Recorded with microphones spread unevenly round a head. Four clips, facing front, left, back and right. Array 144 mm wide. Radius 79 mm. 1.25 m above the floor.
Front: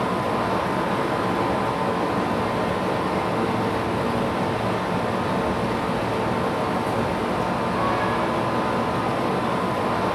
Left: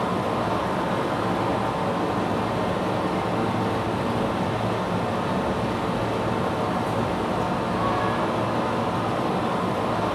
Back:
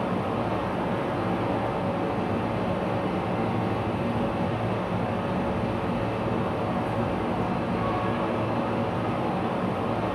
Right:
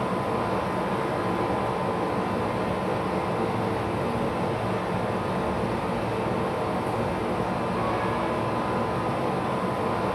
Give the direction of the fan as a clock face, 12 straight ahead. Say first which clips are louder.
Left 2 dB, front 4 dB; 11 o'clock.